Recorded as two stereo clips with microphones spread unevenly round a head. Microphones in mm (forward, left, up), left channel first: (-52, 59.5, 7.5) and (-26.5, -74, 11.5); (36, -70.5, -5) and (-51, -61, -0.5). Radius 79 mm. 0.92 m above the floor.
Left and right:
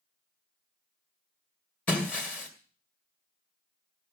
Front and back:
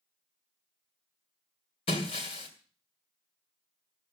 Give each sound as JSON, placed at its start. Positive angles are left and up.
{"t": 1.9, "sound": "breaking glass", "azimuth_deg": 20, "distance_m": 2.5}